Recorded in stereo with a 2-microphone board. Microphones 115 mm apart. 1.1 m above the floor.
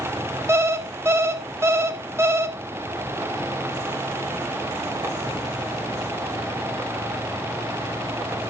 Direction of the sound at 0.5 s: 25° right (ahead or behind).